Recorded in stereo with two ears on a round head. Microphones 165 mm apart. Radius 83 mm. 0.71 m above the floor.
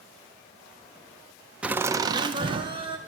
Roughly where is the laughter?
Centre.